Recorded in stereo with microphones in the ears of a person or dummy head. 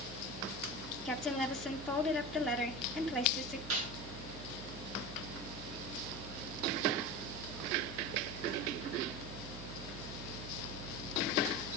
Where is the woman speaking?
Centre (ahead or behind), 1.2 m.